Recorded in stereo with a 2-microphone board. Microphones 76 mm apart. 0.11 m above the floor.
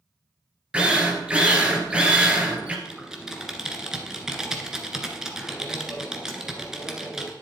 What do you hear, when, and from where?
0.7 s a drill: 15° right (ahead or behind), 2 m
2.9 s typing on a keyboard: 5° right (ahead or behind), 1.6 m